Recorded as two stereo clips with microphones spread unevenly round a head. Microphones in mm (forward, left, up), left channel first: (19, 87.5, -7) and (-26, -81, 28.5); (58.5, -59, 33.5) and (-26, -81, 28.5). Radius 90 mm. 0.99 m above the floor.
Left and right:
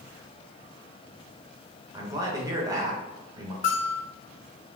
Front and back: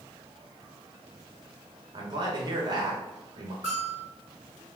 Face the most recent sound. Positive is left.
turn(degrees=130)